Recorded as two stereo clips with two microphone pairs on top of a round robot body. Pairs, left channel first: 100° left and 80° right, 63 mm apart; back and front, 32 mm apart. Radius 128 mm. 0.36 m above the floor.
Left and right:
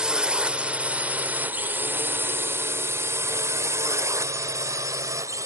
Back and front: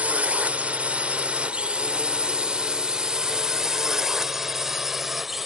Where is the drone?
5° right; by 5.5 s 75° right.